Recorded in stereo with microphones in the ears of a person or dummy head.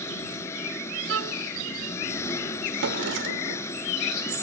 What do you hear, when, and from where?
0.0 s an engine running: 20° left (ahead or behind)
1.1 s a violin: 80° right
2.8 s a drawer: 70° right (ahead or behind)